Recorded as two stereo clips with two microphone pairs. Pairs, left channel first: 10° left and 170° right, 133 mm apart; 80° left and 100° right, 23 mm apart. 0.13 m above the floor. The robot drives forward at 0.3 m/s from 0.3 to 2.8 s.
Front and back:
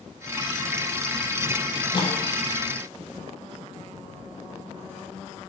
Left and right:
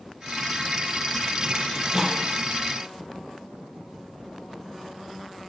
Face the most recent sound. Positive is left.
turn(degrees=-45)